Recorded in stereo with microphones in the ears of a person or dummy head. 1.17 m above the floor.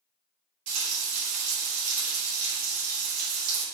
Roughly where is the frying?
Right.